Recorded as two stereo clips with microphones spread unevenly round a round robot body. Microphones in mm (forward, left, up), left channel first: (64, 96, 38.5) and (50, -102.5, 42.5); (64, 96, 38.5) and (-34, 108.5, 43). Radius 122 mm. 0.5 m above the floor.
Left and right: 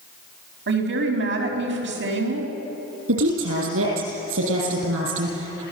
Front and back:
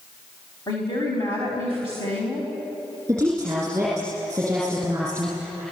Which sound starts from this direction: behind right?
A woman speaking, at 3.1 s.